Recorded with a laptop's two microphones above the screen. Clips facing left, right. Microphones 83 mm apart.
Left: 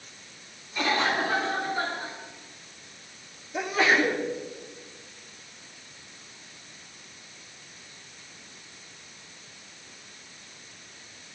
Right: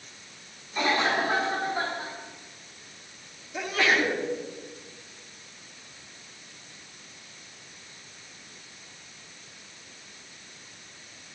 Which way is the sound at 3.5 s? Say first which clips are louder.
Left 2 dB; 20° left (ahead or behind).